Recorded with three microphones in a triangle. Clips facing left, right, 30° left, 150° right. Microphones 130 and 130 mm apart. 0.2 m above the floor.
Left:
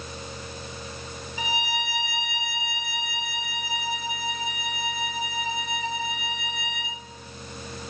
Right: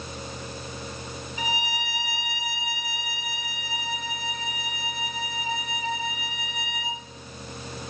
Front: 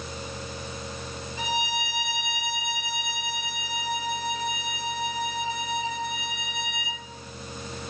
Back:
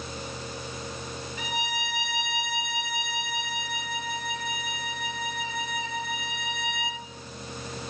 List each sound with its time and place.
1.4 s a violin: 130° right, 2.5 m